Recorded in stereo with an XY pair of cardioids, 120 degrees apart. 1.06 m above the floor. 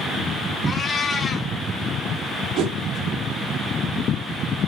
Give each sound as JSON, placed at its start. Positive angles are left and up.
{"t": 0.7, "sound": "a cat meowing", "azimuth_deg": 35, "distance_m": 2.0}
{"t": 2.6, "sound": "a whoosh", "azimuth_deg": -70, "distance_m": 1.5}